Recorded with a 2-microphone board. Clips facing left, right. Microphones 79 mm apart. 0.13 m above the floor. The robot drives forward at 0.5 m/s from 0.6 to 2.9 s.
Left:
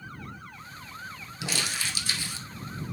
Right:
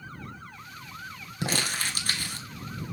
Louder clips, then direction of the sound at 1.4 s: Right 3 dB; 45° right (ahead or behind).